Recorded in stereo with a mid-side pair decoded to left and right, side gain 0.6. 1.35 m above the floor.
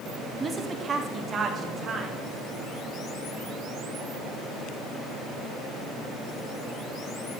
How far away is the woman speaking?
About 2.5 m.